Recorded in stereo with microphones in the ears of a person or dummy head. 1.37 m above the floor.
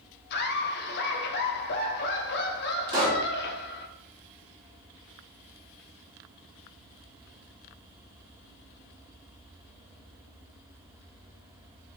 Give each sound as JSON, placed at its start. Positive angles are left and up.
{"t": 0.3, "sound": "laughter", "side_deg": 60, "distance_m": 1.0}
{"t": 2.9, "sound": "a pop", "side_deg": -25, "distance_m": 2.0}